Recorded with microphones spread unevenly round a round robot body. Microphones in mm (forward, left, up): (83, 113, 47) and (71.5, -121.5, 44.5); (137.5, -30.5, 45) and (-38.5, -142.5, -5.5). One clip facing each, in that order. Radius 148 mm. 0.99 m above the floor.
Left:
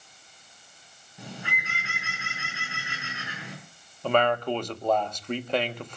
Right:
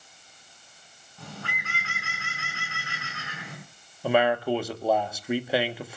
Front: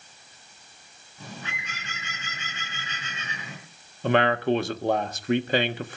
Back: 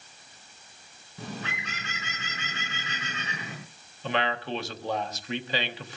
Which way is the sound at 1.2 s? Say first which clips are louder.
Left 1 dB, back 4 dB; 165° left.